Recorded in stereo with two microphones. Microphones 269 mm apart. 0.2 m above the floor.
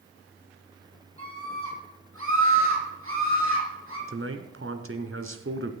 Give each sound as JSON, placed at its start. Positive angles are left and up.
{"t": 1.2, "sound": "a scream", "side_deg": -55, "distance_m": 6.5}
{"t": 4.1, "sound": "a man speaking", "side_deg": -55, "distance_m": 1.7}